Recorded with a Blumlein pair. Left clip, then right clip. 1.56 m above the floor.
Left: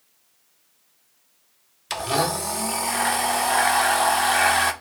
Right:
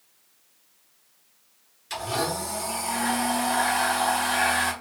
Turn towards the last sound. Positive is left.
turn(degrees=30)